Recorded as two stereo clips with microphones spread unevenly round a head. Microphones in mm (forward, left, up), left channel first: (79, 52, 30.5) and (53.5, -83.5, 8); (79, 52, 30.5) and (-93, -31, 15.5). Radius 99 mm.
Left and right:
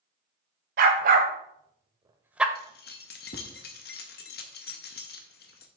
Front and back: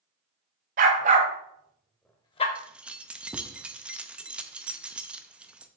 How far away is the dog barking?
About 1.4 m.